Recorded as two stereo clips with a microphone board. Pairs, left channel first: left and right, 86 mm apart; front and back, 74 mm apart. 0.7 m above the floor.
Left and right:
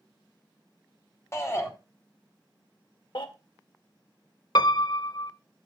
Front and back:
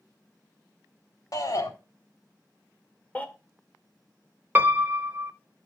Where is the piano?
115° left, 0.8 m.